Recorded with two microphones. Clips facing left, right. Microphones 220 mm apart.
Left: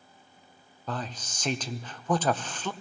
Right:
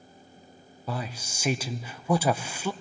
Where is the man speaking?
10° right (ahead or behind), 0.5 m.